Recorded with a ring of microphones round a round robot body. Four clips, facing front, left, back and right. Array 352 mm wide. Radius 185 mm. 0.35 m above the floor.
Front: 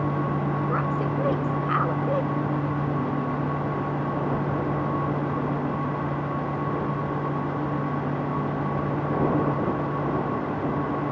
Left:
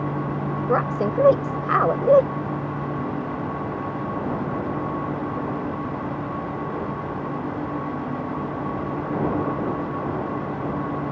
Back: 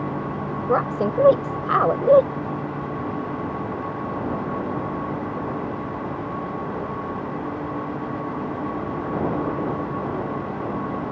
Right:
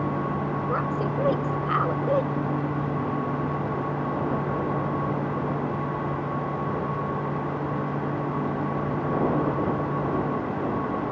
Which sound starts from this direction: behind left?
A woman speaking, at 0.7 s.